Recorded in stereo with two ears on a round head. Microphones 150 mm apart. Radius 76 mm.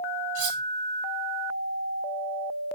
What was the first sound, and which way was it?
Cutlery clinking, 85° right.